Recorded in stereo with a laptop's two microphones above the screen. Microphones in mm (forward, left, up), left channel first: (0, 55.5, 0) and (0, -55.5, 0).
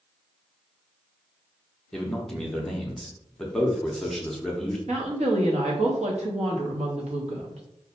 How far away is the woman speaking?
About 0.9 m.